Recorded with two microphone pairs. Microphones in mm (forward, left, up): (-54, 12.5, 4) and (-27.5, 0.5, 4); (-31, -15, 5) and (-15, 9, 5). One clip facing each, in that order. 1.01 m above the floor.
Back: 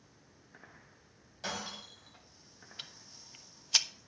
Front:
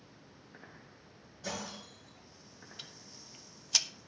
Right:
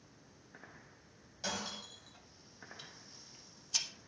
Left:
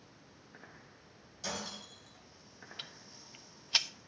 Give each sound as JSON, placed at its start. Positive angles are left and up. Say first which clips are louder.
{"t": 1.4, "sound": "breaking glass", "louder": "back 1 dB, right 1 dB", "azimuth_deg": 170, "distance_m": 4.5}
{"t": 2.8, "sound": "ticking", "louder": "back 3 dB, left 5 dB", "azimuth_deg": 90, "distance_m": 0.5}